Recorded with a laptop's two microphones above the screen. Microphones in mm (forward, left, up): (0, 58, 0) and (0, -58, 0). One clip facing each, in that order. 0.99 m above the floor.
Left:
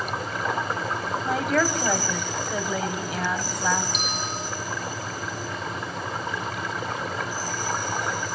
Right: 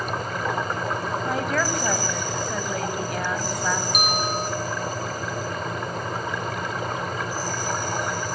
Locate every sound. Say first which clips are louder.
0.0 s a fan: right 1 dB; 50° right (ahead or behind), 5 m
1.2 s a woman speaking: left 3 dB; centre (ahead or behind), 5.5 m
3.9 s a bell: right 6 dB; 55° right (ahead or behind), 3 m